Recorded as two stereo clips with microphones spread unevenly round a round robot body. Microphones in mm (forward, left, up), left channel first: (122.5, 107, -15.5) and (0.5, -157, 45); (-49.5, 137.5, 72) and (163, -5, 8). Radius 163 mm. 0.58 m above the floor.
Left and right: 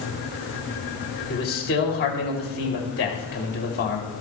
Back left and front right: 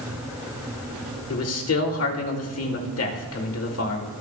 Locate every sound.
1.3 s a man speaking: 115° left, 3 m